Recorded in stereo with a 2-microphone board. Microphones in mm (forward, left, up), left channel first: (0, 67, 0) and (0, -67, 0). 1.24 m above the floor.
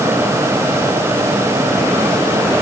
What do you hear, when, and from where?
Only background noise.